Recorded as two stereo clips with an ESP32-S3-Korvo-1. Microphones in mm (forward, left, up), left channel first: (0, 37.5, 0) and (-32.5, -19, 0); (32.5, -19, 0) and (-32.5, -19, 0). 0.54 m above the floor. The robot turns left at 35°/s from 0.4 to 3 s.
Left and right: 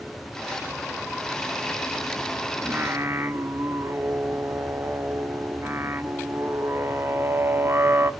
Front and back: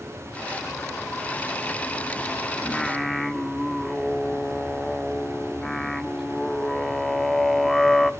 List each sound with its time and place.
2.6 s singing: 70° right, 0.7 m; by 8.1 s 85° right, 0.7 m